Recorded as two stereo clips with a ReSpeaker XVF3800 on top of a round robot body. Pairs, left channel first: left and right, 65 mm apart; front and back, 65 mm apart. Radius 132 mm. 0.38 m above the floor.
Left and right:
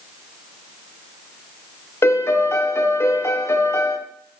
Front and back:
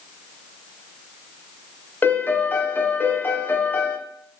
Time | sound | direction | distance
2.0 | a piano | 55° left | 0.7 m